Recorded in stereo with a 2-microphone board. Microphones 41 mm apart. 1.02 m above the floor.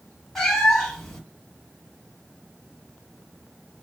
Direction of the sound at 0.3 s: 5° left (ahead or behind).